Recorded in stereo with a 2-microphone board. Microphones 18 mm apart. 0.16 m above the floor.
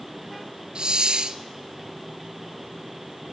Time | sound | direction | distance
0.8 | a hiss | 50° right (ahead or behind) | 0.8 m